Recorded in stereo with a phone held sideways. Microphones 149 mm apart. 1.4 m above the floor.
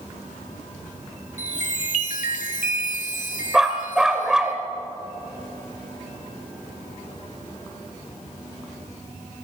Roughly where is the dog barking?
Centre.